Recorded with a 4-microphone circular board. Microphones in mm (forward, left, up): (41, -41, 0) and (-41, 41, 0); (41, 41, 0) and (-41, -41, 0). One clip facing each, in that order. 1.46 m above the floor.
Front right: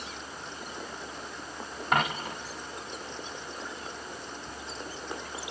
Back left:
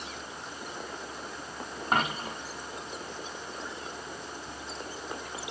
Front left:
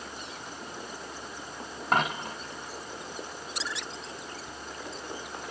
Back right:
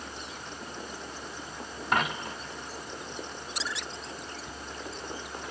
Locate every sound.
1.9 s a dropped coin: 75° left, 2.5 m